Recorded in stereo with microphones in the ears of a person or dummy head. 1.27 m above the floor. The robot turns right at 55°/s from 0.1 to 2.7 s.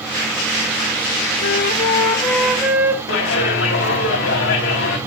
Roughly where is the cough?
No cough in this recording.